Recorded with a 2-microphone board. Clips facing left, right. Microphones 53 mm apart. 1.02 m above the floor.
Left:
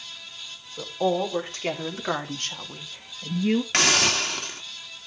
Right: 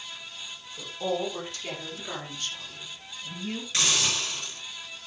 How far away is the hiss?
About 1.7 m.